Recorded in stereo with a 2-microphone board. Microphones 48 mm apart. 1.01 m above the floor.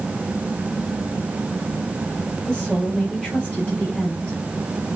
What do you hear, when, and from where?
2.5 s a woman speaking: 15° left (ahead or behind), 6.5 m